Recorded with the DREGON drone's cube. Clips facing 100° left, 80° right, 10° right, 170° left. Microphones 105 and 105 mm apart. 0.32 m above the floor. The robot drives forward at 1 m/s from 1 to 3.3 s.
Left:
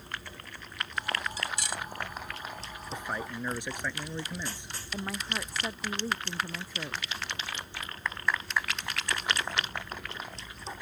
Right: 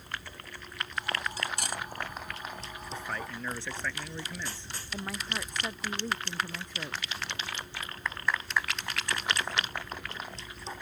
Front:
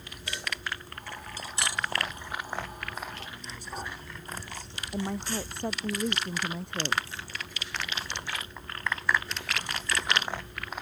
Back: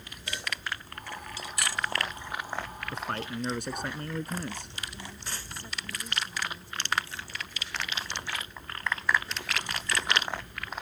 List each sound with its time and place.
1.4 s cutlery clinking: 50° right; by 1.8 s 90° right
2.9 s a man speaking: 175° left
4.9 s a woman speaking: 15° left